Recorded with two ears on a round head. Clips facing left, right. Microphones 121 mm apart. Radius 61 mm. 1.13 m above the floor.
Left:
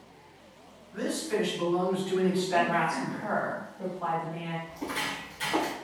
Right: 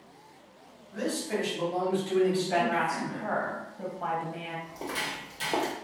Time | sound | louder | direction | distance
0.9 | a man speaking | left 1 dB | 60° right (ahead or behind) | 1.9 m
2.2 | a woman speaking | even | 50° right (ahead or behind) | 1.0 m
4.7 | footsteps | left 1 dB | 55° right (ahead or behind) | 2.0 m